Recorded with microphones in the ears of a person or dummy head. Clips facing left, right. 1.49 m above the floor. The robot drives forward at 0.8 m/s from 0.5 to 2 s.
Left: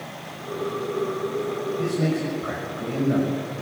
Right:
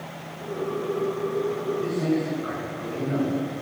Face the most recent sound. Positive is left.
turn(degrees=45)  # may be behind; listen again after turning